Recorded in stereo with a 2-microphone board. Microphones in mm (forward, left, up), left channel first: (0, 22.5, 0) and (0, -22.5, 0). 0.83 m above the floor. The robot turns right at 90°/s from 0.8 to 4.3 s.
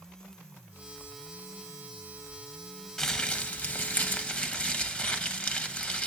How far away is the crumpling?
About 0.8 m.